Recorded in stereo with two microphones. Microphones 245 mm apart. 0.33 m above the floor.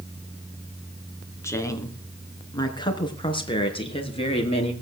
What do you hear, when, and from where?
1.4 s a woman speaking: 10° left (ahead or behind), 3.5 m; by 4.7 s 25° left (ahead or behind), 5 m